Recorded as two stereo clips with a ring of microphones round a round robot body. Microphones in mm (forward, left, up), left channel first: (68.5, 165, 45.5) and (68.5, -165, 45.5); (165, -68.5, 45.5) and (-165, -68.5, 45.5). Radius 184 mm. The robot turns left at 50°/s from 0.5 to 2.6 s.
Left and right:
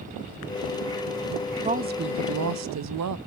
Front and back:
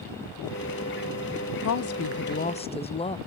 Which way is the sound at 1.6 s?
20° right.